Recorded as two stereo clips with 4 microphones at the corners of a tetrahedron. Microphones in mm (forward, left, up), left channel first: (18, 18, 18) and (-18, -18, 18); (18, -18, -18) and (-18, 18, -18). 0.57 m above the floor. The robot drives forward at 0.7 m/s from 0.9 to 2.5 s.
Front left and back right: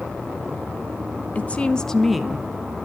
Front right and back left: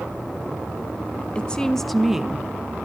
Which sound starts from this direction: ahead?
A woman speaking, at 1.4 s.